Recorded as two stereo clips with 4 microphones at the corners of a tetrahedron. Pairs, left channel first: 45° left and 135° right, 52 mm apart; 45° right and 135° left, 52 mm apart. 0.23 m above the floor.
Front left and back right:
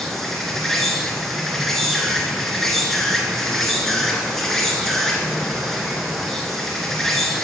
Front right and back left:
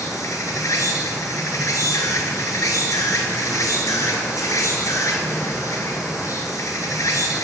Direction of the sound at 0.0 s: 40° right.